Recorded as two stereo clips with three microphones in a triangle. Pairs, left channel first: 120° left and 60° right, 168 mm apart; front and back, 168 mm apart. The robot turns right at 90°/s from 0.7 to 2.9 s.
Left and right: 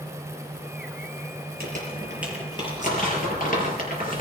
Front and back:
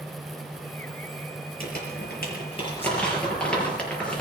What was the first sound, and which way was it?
Crumpling, 35° right.